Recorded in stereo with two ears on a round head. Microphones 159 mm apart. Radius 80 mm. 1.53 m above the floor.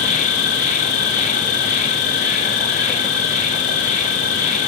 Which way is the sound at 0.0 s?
40° left (ahead or behind).